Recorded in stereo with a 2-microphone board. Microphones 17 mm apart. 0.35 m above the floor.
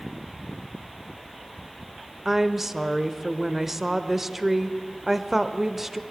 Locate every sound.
2.2 s a woman speaking: 20° right (ahead or behind), 0.9 m